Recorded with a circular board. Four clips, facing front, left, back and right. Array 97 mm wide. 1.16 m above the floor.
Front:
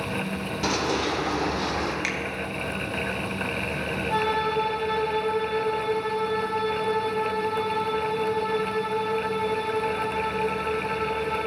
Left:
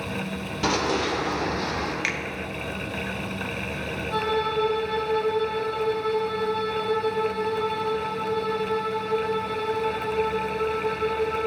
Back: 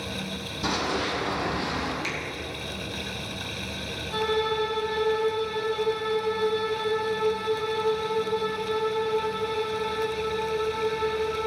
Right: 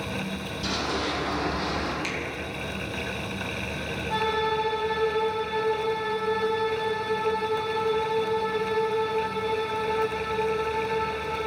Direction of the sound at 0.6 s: 60° left.